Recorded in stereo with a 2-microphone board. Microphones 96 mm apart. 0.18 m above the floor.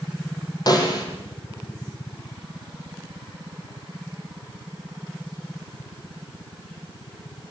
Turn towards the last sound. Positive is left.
turn(degrees=45)  # may be behind; listen again after turning